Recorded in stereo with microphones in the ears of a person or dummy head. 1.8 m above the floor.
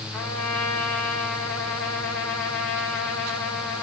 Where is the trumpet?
5° left (ahead or behind), 4.5 m.